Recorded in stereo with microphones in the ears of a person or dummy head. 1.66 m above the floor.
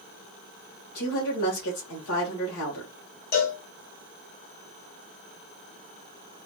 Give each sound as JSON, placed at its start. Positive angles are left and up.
{"t": 0.9, "sound": "a woman speaking", "side_deg": 75, "distance_m": 1.7}
{"t": 3.3, "sound": "a cowbell", "side_deg": 50, "distance_m": 0.8}